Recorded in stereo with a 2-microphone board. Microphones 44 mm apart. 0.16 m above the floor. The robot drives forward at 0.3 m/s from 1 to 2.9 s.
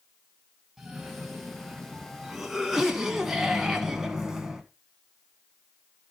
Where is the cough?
5° right (ahead or behind), 1.7 m.